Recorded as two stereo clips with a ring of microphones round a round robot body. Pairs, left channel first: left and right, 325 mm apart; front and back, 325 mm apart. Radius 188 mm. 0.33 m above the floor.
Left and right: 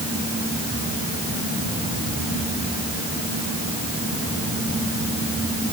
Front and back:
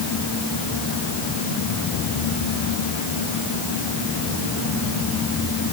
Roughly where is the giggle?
No giggle in this recording.